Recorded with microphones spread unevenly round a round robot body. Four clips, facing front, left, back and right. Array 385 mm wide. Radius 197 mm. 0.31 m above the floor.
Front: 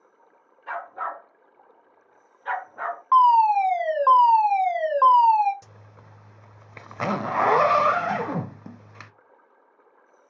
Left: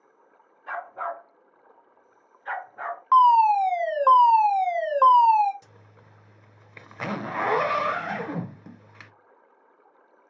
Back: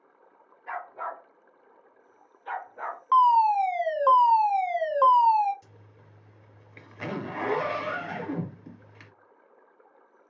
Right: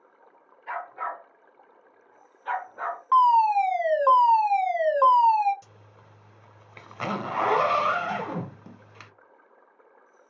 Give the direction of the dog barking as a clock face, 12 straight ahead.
11 o'clock.